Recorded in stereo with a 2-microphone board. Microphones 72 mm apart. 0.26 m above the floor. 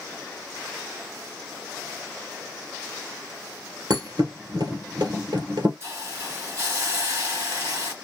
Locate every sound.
3.9 s a thud: 70° right (ahead or behind), 1.5 m
5.8 s a hiss: 40° right (ahead or behind), 3 m